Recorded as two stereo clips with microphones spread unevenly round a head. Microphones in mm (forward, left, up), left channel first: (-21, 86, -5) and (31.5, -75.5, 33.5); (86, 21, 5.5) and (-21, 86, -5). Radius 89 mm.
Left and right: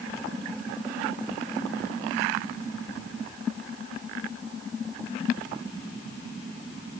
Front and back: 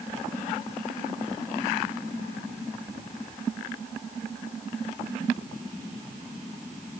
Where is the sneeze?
No sneeze in this recording.